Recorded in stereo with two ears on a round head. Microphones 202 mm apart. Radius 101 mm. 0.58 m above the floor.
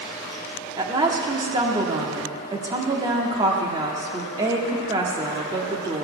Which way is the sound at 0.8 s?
20° right (ahead or behind).